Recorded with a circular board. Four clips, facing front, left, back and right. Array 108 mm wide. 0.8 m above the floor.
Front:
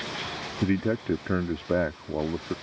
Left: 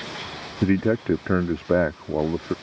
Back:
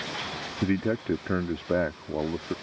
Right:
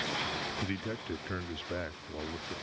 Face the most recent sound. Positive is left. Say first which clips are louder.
# left 16 dB, front 1 dB
turn(degrees=90)